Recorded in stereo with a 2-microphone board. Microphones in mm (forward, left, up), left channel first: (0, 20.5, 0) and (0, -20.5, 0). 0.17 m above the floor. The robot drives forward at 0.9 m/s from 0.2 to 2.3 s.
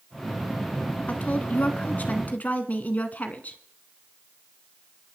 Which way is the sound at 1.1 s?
40° left (ahead or behind).